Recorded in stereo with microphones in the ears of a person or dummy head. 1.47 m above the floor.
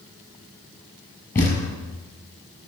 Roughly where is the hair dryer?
No hair dryer in this recording.